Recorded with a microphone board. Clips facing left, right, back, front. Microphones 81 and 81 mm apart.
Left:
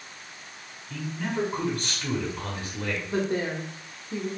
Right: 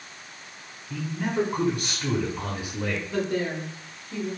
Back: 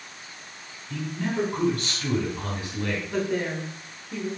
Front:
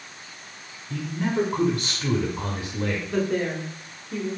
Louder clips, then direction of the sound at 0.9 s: Right 3 dB, front 3 dB; 35° right.